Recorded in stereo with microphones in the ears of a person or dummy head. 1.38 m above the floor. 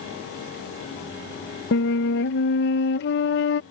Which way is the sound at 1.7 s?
60° left (ahead or behind).